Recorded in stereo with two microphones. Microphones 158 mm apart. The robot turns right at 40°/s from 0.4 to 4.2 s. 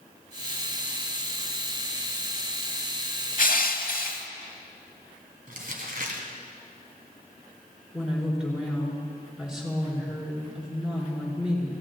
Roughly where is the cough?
No cough in this recording.